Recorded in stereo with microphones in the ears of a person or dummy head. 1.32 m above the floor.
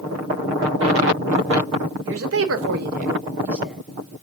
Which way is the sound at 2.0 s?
70° right (ahead or behind).